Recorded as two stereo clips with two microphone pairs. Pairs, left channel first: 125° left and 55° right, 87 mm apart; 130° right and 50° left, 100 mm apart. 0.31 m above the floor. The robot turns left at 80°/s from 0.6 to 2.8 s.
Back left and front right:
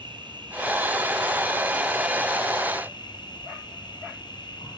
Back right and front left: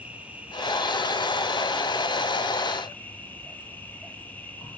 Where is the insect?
25° right, 5 m; by 4.8 s 160° left, 5 m.